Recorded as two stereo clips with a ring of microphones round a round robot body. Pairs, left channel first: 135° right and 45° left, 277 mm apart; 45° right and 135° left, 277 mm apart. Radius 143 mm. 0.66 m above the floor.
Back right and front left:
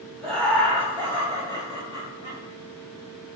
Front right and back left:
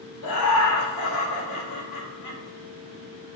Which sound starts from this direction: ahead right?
Laughter, at 0.2 s.